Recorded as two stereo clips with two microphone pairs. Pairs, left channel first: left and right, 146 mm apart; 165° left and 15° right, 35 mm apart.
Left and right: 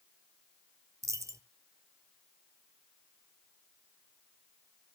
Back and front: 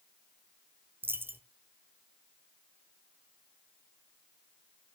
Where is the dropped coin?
20° right, 0.6 m.